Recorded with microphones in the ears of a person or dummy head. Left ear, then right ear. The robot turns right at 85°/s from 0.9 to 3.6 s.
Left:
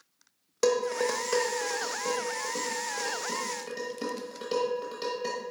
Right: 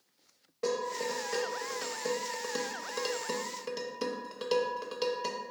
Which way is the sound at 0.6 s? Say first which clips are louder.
Left 7 dB; 75° left (ahead or behind).